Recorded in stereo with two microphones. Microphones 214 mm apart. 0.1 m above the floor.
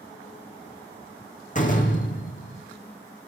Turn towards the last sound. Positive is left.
turn(degrees=40)  # may be behind; listen again after turning